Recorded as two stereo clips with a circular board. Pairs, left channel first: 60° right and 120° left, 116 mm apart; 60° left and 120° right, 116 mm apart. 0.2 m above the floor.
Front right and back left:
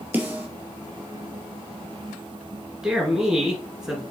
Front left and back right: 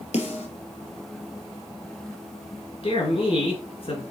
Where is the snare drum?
45° left, 2.5 m.